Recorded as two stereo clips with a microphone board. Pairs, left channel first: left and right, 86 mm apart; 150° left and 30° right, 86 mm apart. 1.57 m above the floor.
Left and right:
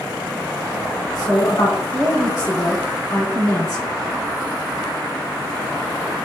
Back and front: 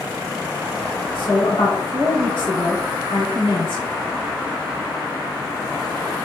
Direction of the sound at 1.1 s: 130° left.